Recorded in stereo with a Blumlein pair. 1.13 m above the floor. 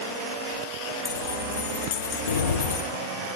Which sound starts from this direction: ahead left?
Keys jangling, at 1.1 s.